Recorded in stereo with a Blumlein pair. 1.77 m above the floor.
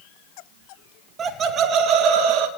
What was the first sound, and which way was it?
Laughter, 25° right.